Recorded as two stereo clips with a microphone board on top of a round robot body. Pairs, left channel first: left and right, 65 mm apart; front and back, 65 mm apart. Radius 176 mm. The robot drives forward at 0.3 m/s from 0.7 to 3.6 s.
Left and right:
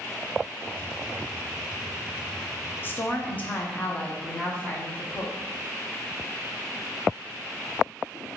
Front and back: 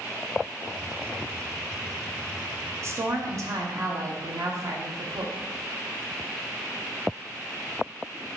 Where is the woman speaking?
145° left, 0.7 m; by 5.4 s 155° left, 0.8 m.